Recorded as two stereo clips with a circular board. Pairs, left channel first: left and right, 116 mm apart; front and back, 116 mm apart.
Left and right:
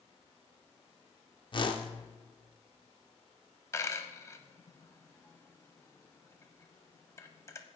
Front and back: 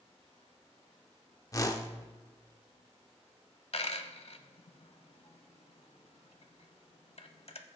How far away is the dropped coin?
About 0.7 m.